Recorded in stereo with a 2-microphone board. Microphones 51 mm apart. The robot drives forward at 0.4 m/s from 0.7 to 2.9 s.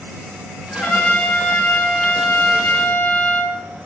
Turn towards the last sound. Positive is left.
turn(degrees=35)  # may be behind; listen again after turning